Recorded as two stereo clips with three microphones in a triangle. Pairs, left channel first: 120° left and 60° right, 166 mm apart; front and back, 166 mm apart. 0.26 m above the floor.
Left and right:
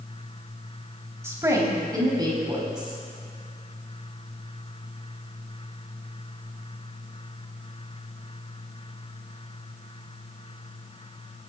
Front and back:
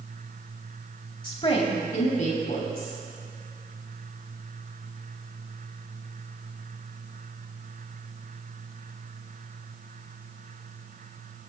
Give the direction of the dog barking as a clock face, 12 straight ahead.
I don't hear a dog barking.